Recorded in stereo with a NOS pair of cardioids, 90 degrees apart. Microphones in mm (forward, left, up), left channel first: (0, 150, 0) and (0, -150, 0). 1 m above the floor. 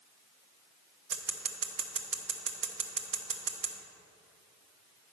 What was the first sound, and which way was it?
Scissors, 40° right.